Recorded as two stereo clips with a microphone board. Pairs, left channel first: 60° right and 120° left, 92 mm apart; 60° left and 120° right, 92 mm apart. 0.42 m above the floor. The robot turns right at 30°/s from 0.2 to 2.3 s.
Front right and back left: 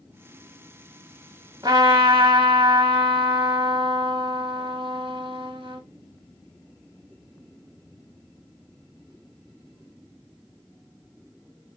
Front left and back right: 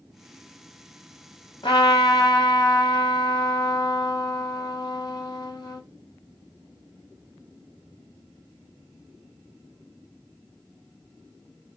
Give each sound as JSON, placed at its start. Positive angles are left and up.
{"t": 1.6, "sound": "a trumpet", "azimuth_deg": 75, "distance_m": 1.3}